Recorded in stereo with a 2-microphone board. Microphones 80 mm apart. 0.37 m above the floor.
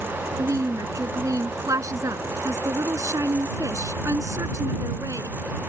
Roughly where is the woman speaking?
Right.